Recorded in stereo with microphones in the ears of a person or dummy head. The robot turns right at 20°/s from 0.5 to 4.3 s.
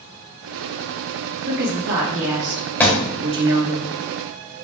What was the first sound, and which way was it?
A woman speaking, 120° right.